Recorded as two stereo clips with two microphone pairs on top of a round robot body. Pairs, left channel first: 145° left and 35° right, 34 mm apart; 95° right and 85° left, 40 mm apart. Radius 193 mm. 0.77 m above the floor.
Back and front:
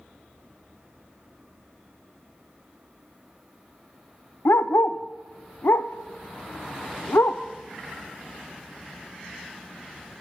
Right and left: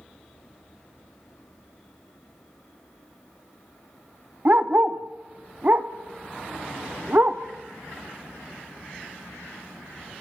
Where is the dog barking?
135° left, 0.6 m.